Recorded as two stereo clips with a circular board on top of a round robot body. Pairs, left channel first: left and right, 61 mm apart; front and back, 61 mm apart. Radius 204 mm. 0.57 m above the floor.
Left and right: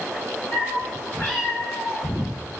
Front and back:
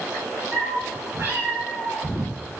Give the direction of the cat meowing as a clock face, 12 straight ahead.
7 o'clock.